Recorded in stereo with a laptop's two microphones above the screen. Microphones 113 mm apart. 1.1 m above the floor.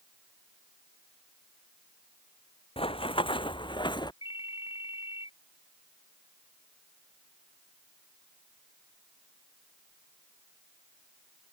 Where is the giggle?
I don't hear a giggle.